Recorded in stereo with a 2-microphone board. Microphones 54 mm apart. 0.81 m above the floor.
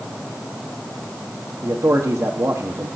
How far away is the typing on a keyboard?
No typing on a keyboard in this recording.